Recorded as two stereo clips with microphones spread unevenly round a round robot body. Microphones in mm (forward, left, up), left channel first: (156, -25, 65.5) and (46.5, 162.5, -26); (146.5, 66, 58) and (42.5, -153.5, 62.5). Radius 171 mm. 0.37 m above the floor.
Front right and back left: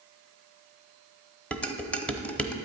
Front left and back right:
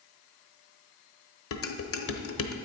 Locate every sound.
1.5 s dishes clattering: 35° left, 1.1 m